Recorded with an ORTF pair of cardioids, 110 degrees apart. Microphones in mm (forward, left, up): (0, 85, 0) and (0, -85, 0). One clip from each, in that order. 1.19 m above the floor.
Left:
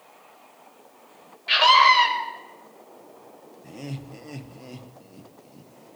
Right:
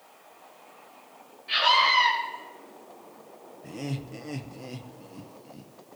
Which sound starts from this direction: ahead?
Laughter, at 3.6 s.